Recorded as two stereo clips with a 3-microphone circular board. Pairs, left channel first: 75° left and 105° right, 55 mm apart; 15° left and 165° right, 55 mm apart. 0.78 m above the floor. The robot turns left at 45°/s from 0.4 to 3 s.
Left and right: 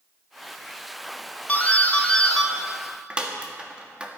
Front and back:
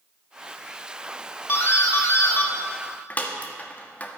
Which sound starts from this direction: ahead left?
A doorbell, at 1.5 s.